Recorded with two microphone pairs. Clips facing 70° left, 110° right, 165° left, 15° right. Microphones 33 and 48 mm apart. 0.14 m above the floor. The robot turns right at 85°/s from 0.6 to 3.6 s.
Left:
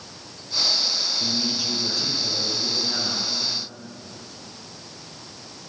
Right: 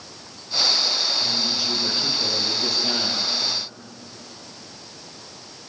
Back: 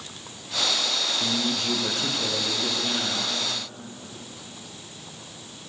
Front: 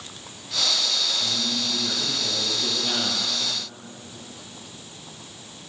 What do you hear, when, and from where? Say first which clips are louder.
1.2 s a man speaking: right 2 dB, back 2 dB; 125° left, 4 m; by 3.2 s 60° right, 4 m